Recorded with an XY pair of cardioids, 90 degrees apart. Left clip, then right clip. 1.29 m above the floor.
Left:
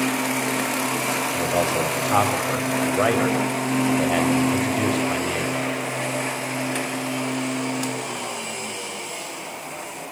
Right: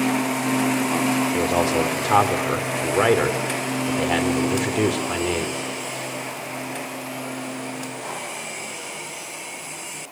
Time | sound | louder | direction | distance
1.3 | a man speaking | right 1 dB | 65° right | 5 m